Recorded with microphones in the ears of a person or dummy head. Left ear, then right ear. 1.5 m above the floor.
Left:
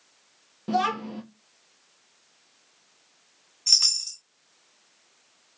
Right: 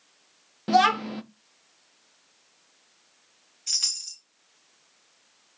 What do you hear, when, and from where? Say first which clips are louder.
0.7 s a child speaking: right 5 dB; 30° right (ahead or behind), 0.5 m
3.7 s a chime: left 7 dB; 55° left (ahead or behind), 2 m